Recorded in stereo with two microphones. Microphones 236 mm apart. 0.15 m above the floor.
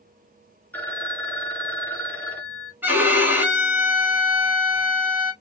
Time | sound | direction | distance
0.7 | a phone ringing | 10° left (ahead or behind) | 0.7 m
2.8 | a violin | 10° right (ahead or behind) | 1.4 m